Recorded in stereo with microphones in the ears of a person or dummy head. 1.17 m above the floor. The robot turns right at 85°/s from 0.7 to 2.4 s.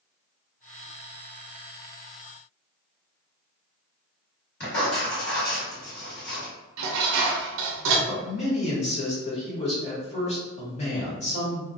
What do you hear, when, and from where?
4.6 s writing: 50° left (ahead or behind), 1.5 m
6.8 s dishes clattering: 70° right (ahead or behind), 0.5 m
8.1 s a man speaking: 30° left (ahead or behind), 1.0 m